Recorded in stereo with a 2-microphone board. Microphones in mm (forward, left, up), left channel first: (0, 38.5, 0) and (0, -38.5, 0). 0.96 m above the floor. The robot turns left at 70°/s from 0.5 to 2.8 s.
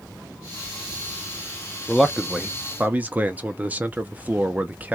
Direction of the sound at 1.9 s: 5° left (ahead or behind).